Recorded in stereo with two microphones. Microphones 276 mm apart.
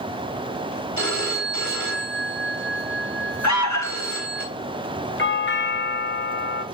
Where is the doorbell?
40° left (ahead or behind), 1.4 m.